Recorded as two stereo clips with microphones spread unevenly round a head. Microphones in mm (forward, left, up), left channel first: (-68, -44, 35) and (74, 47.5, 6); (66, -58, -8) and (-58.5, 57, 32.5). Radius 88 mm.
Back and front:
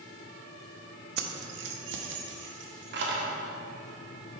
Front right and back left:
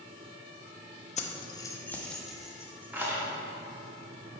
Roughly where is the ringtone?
No ringtone in this recording.